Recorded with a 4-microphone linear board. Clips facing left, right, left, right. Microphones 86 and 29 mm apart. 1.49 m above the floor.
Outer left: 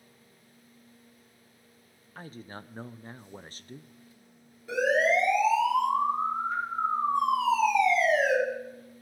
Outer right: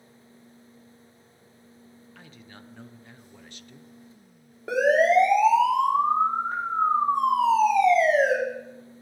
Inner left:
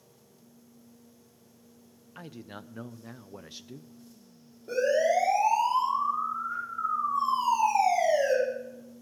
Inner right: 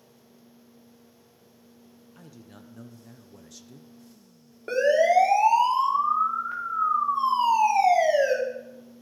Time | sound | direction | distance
2.1 | a man speaking | 35° left (ahead or behind) | 0.6 m
4.7 | a siren | 75° right (ahead or behind) | 5 m